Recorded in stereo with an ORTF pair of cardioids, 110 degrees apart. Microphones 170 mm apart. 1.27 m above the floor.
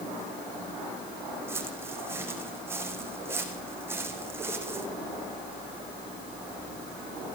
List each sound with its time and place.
1.5 s footsteps: 15° right, 4.5 m